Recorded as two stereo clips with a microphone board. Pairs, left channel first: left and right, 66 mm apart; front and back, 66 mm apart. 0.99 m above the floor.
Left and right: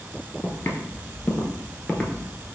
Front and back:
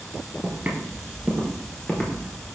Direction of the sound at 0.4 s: 130° left.